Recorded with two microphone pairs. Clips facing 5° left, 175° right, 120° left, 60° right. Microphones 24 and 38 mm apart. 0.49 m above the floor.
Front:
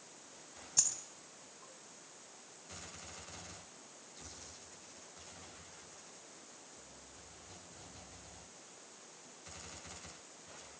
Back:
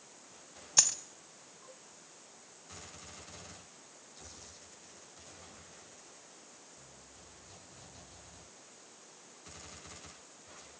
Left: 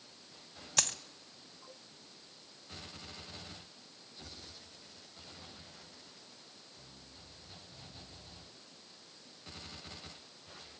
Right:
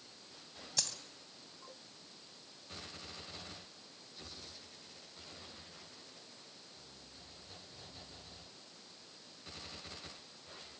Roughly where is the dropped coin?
Behind left.